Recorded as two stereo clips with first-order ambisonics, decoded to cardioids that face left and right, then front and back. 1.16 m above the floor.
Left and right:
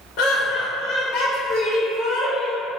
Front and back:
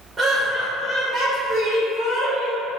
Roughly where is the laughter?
Left.